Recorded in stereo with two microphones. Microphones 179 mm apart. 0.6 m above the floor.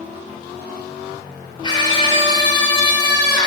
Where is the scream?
30° left (ahead or behind), 2.5 m.